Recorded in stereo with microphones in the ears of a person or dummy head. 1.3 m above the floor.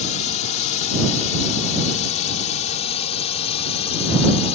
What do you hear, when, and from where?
0.0 s a drone: 35° left (ahead or behind)